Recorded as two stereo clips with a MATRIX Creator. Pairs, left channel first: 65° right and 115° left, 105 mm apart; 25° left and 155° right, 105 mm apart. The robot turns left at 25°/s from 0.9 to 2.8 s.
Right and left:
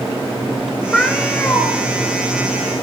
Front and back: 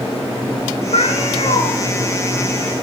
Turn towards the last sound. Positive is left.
turn(degrees=-30)